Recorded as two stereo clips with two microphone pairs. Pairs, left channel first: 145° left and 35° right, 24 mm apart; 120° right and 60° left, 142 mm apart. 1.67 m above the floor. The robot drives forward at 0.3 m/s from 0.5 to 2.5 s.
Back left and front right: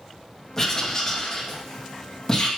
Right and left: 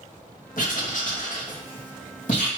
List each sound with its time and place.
0.6 s writing: 140° right, 2 m; by 2.5 s 145° right, 2.5 m